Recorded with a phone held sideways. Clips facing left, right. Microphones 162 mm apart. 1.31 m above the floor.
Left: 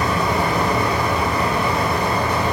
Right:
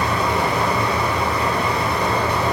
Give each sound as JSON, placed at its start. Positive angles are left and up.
{"t": 0.0, "sound": "a fan", "side_deg": 45, "distance_m": 1.1}